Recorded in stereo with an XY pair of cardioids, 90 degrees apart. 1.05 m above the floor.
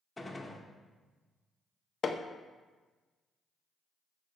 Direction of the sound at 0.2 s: 15° left.